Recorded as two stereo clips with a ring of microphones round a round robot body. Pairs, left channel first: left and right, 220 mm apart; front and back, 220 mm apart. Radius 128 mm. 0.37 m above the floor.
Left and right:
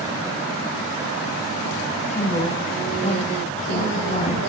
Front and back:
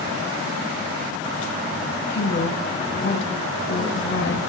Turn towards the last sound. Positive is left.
turn(degrees=30)